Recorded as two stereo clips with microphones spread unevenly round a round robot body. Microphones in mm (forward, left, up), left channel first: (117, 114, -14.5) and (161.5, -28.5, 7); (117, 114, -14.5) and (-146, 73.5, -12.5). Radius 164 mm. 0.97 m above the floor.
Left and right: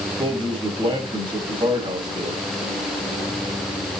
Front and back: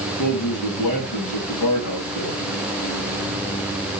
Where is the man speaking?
15° right, 7 m.